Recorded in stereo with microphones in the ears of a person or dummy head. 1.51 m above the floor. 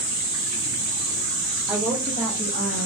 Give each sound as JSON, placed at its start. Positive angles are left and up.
{"t": 1.7, "sound": "a woman speaking", "side_deg": -5, "distance_m": 1.2}